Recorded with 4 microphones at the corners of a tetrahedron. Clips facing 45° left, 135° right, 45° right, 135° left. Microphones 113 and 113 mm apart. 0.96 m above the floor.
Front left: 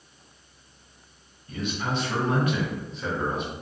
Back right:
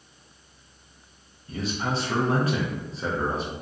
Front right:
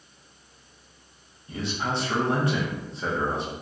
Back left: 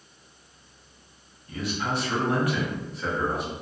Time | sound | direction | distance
1.5 | a man speaking | 95° right | 0.6 m